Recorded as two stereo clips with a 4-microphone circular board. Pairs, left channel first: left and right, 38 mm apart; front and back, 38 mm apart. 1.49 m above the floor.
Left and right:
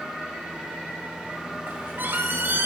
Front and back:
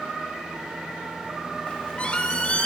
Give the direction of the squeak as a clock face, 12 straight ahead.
2 o'clock.